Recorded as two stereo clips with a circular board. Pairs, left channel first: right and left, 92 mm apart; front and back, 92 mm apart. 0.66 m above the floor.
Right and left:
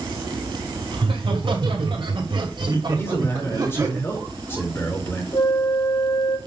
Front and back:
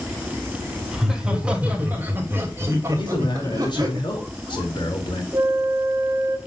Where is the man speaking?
25° right, 4 m.